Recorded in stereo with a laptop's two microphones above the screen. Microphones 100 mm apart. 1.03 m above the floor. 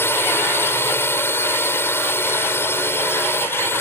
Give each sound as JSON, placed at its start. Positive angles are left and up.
{"t": 0.0, "sound": "a drone", "side_deg": 25}